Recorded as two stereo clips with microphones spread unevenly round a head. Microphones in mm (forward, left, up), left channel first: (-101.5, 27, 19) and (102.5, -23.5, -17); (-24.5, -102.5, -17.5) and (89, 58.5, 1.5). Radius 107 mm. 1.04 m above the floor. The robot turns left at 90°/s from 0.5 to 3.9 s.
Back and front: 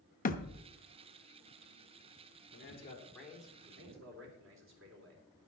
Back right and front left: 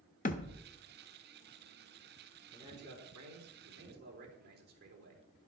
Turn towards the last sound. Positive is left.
turn(degrees=15)